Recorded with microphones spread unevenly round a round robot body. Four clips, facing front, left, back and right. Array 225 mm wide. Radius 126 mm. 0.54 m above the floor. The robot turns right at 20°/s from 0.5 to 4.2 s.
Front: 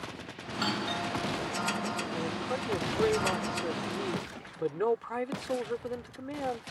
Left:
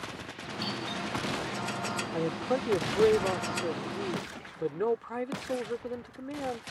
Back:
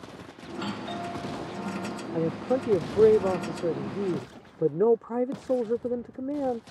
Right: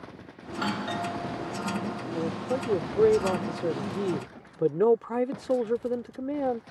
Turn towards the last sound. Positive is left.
turn(degrees=-140)